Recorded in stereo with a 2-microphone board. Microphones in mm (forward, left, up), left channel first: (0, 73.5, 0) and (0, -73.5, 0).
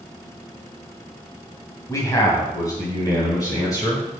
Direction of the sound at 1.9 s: 25° left (ahead or behind).